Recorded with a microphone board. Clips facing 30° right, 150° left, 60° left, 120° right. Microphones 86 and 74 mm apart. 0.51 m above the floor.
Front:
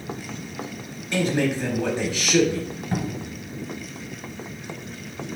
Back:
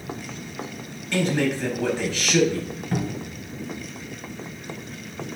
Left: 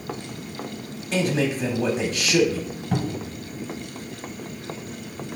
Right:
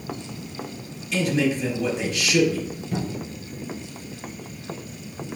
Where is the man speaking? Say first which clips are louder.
Even, right 1 dB; 40° left, 1.2 m.